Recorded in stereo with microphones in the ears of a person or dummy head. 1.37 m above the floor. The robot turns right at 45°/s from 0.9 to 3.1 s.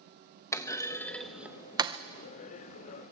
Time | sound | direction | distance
0.5 | a clunk | 15° left (ahead or behind) | 0.7 m